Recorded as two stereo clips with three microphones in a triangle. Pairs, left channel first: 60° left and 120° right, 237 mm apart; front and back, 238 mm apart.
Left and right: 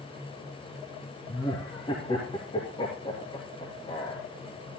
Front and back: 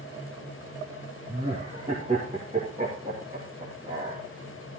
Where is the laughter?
120° left, 2.5 m.